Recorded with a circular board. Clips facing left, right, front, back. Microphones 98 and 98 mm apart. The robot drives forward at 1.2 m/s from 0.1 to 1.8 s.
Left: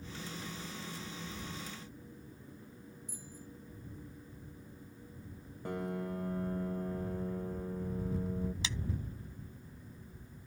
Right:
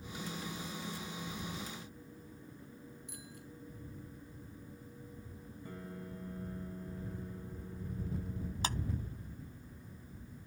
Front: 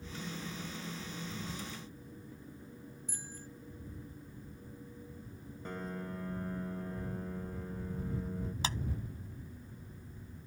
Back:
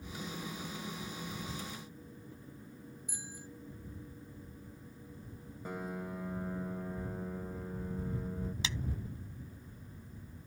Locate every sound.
3.1 s a bicycle bell: 100° right
5.7 s a piano: 100° left
8.6 s a clap: 50° right